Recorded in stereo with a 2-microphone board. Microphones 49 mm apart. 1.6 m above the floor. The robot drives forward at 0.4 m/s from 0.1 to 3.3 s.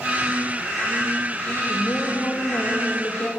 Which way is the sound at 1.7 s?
60° left (ahead or behind).